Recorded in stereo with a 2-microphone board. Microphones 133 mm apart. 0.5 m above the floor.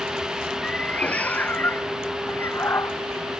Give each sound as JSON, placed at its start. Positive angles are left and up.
{"t": 0.6, "sound": "a cat meowing", "side_deg": 10}